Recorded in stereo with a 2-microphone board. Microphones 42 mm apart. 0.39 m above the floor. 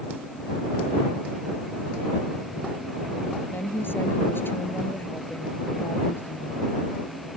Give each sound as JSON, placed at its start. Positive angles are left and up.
{"t": 3.5, "sound": "a woman speaking", "side_deg": 60}